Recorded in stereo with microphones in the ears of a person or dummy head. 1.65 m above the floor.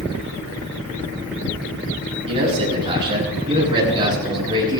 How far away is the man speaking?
About 9.5 m.